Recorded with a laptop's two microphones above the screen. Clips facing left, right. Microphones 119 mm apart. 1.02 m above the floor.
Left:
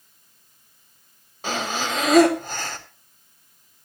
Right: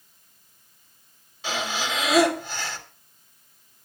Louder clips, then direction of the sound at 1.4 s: Left 2 dB; 45° left (ahead or behind).